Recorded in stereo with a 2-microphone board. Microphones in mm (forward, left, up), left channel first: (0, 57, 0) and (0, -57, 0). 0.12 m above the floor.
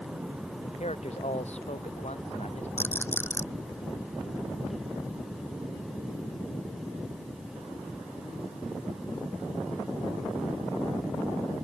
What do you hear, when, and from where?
0.6 s a man speaking: 75° left (ahead or behind)
2.8 s a rattle: 20° left (ahead or behind)